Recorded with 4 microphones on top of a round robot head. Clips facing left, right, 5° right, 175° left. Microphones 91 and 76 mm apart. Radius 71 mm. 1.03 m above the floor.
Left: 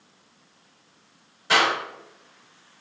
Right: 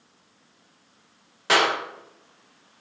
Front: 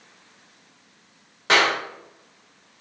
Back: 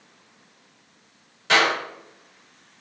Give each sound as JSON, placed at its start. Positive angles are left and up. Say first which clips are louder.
{"t": 1.5, "sound": "a clap", "louder": "even, even", "azimuth_deg": -65, "distance_m": 2.5}